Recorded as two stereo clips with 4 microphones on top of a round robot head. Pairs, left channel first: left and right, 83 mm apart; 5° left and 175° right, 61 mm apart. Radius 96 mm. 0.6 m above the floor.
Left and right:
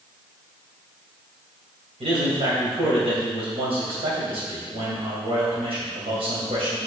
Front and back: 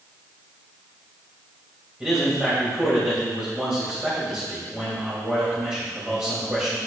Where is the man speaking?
95° right, 3 m.